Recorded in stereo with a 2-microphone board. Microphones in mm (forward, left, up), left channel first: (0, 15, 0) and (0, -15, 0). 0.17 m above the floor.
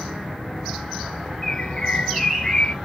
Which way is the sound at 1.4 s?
30° left (ahead or behind).